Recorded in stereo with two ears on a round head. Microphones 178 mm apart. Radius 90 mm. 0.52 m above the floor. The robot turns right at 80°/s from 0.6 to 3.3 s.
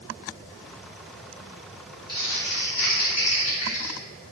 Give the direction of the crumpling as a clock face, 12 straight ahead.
11 o'clock.